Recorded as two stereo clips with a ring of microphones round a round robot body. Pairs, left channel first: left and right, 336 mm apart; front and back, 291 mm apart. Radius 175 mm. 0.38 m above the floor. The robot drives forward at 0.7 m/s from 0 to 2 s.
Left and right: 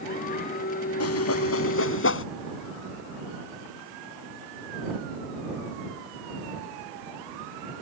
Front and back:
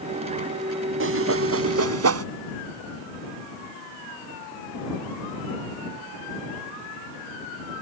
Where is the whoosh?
135° left; by 2.2 s 145° left.